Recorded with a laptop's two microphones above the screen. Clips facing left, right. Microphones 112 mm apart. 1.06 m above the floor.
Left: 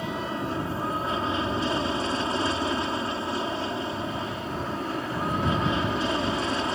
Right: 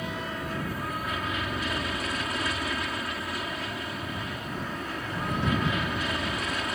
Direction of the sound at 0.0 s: 30° left (ahead or behind).